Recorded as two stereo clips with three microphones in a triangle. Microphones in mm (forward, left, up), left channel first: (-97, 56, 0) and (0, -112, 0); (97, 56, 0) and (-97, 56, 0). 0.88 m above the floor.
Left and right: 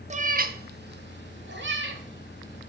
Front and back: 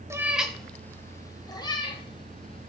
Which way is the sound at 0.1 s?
110° right.